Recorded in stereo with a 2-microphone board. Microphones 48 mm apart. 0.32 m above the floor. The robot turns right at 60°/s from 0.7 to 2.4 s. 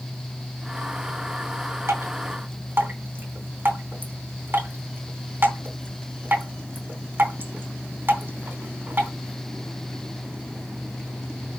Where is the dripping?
65° right (ahead or behind), 3.5 m; by 9.1 s 50° right (ahead or behind), 3.5 m.